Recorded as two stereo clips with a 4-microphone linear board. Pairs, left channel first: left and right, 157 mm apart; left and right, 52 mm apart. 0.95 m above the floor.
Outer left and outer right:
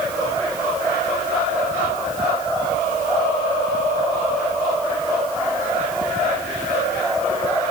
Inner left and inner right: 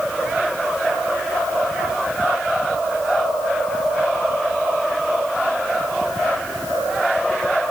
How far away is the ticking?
I don't hear ticking.